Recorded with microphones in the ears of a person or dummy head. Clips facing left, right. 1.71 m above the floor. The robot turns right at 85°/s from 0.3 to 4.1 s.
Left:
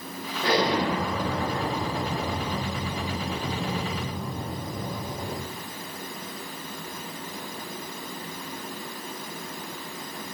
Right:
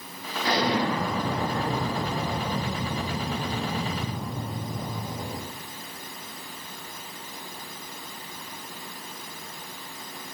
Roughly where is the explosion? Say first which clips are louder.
Left 1 dB; behind left.